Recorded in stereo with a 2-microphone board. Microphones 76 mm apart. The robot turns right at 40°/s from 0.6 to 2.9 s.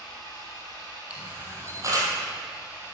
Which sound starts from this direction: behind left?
An engine running, at 0.0 s.